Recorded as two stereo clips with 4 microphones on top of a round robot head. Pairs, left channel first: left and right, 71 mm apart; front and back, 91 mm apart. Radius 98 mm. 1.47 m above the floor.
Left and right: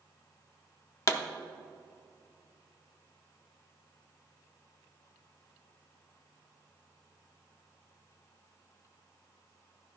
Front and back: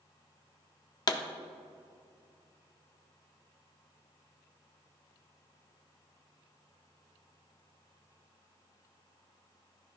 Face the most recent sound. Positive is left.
turn(degrees=45)